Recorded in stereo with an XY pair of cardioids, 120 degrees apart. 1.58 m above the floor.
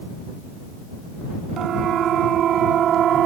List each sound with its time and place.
1.6 s a siren: 55° right